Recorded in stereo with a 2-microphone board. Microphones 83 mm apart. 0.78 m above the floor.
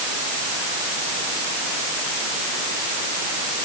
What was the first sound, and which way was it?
Only background noise.